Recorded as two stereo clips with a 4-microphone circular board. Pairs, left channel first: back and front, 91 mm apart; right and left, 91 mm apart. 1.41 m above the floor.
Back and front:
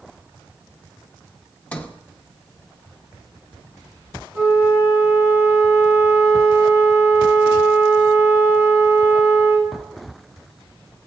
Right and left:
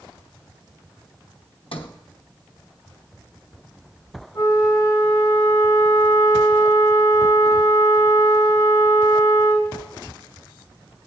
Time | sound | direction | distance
1.7 | a sliding door | 100° right | 0.9 m
4.3 | a flute | 55° right | 3.5 m